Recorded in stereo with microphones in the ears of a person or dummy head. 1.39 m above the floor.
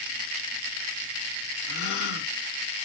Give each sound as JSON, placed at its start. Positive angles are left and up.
{"t": 1.7, "sound": "a gasp", "side_deg": 55, "distance_m": 1.4}